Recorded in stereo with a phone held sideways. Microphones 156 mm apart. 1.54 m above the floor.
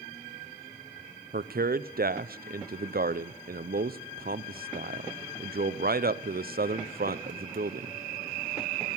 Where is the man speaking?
75° right (ahead or behind), 0.5 m.